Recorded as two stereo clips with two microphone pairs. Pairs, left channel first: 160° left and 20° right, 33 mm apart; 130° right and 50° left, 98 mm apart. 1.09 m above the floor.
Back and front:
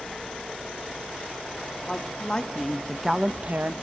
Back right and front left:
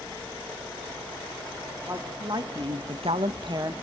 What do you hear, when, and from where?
1.9 s a woman speaking: 105° left, 2.5 m; by 3.7 s straight ahead, 1.2 m